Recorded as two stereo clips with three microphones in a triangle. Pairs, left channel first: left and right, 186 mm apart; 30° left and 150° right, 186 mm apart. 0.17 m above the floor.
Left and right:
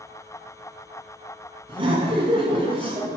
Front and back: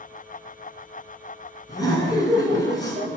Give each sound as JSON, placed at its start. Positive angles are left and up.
{"t": 1.7, "sound": "laughter", "azimuth_deg": -35, "distance_m": 1.9}